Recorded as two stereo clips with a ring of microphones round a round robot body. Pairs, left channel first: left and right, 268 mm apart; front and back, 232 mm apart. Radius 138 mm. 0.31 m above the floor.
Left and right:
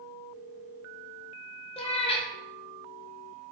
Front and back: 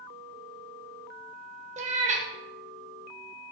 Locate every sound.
1.8 s a cat meowing: 145° left, 0.7 m